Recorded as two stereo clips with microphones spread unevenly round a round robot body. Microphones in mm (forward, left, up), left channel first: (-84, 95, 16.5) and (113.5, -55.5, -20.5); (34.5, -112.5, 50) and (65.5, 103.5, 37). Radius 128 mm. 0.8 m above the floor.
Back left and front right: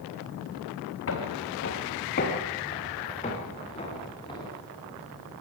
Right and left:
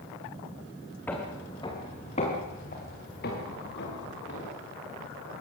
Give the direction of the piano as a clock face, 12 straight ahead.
I don't hear a piano.